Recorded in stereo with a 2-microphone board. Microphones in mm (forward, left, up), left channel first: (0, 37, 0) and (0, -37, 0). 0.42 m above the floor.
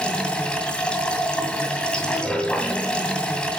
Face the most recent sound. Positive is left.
turn(degrees=15)  # may be behind; listen again after turning